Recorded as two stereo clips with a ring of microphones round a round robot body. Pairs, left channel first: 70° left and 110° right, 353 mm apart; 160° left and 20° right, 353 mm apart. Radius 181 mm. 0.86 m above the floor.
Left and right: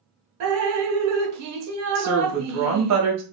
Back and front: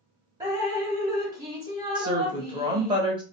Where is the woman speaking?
95° right, 1.1 m.